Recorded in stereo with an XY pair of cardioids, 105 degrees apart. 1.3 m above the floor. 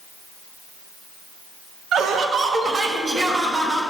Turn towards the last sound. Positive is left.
turn(degrees=-30)